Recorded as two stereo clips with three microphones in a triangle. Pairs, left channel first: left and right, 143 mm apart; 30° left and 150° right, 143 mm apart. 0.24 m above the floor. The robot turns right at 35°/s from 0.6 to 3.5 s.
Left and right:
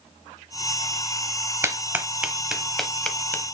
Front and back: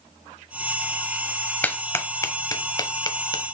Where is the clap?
40° right, 1.0 m; by 3.5 s 25° left, 1.0 m.